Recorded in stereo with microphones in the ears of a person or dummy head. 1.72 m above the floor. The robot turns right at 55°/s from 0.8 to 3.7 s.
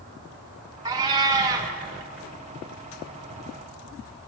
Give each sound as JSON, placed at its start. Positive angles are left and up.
{"t": 0.8, "sound": "a cat meowing", "side_deg": -20, "distance_m": 0.9}